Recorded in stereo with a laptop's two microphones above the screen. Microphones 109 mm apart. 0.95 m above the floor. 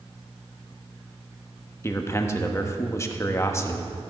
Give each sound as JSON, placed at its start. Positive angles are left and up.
{"t": 1.8, "sound": "a man speaking", "side_deg": 25, "distance_m": 1.2}